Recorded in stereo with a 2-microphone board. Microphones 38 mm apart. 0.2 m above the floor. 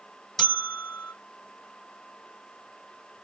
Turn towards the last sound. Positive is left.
turn(degrees=10)  # may be behind; listen again after turning